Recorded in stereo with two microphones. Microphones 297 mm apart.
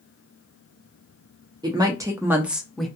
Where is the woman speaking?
15° right (ahead or behind), 0.6 m; by 2.9 s centre (ahead or behind), 0.7 m.